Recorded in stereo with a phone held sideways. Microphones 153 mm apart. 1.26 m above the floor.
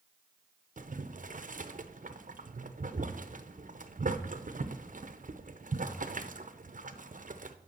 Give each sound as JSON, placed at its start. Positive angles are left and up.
{"t": 0.8, "sound": "boiling", "side_deg": -60, "distance_m": 0.5}